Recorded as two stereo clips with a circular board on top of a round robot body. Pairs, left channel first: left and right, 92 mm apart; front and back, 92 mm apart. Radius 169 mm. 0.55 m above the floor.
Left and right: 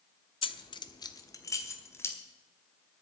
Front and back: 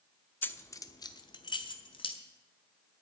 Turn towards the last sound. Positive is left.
turn(degrees=25)